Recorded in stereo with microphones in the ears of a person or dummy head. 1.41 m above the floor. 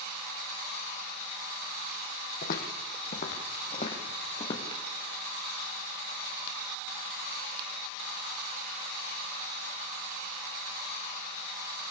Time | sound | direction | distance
2.4 | footsteps | 50° left (ahead or behind) | 3.5 m